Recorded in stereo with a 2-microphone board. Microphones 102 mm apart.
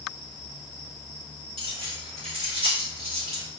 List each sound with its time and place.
1.6 s keys jangling: 70° right (ahead or behind), 1.9 m; by 3.4 s 75° right (ahead or behind), 3.5 m